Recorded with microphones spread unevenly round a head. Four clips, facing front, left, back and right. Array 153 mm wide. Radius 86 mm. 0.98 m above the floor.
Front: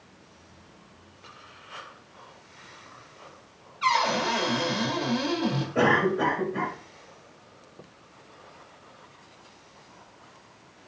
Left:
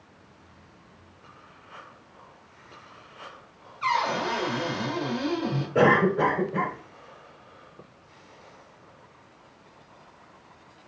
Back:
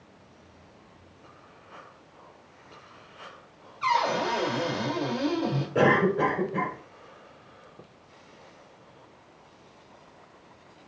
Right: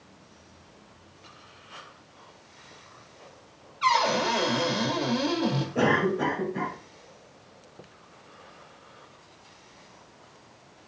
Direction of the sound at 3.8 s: 140° right.